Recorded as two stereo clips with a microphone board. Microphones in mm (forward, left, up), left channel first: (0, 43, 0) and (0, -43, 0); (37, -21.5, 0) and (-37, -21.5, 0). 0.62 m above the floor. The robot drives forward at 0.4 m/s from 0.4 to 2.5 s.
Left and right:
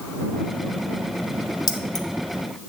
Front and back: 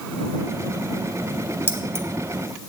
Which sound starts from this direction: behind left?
Keys jangling, at 1.7 s.